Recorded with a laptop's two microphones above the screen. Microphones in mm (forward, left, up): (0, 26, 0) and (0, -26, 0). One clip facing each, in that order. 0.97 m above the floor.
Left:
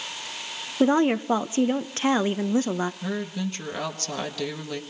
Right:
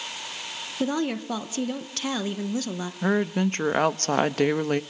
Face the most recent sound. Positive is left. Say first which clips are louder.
# right 6 dB
turn(degrees=-45)  # may be behind; listen again after turning